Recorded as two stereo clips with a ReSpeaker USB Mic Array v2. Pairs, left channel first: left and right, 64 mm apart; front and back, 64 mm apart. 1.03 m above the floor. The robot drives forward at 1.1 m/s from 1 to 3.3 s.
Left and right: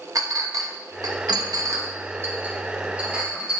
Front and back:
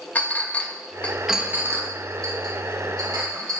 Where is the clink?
70° right, 0.7 m; by 3.6 s 165° right, 2.5 m.